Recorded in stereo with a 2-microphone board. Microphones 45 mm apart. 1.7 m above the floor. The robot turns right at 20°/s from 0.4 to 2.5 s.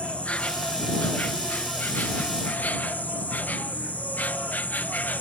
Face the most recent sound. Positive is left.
turn(degrees=90)